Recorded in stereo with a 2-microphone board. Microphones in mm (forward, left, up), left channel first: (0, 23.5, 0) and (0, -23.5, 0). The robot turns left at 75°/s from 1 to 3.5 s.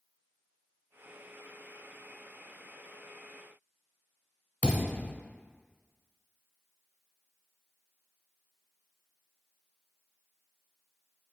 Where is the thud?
30° left (ahead or behind), 1.1 m.